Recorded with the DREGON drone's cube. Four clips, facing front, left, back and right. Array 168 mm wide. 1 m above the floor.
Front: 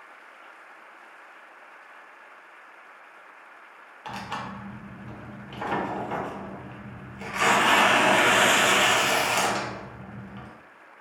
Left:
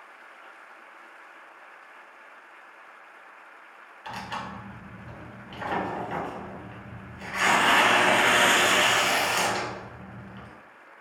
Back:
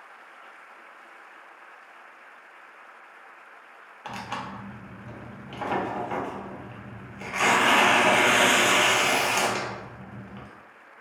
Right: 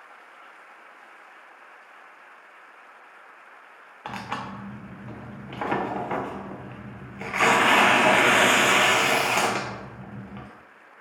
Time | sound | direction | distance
4.0 | tearing paper | 90° right | 0.5 m